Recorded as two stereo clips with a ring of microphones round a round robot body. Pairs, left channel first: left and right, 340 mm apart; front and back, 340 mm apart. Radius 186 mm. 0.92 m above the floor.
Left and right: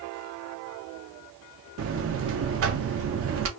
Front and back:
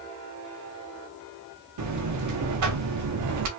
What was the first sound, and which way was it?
A buzzer, 140° right.